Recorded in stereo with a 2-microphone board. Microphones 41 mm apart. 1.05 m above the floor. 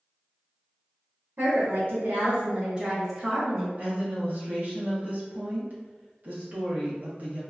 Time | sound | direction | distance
1.4 | a woman speaking | 55° right (ahead or behind) | 0.8 m
3.8 | a woman speaking | 40° right (ahead or behind) | 0.8 m